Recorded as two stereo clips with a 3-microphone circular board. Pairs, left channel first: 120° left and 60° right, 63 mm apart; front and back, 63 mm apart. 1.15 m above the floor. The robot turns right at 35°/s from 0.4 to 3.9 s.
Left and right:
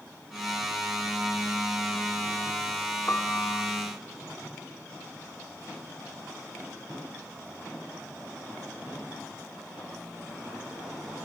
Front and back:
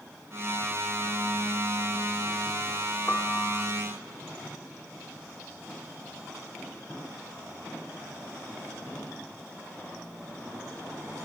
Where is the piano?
60° left, 1.8 m; by 3.6 s 75° left, 1.8 m.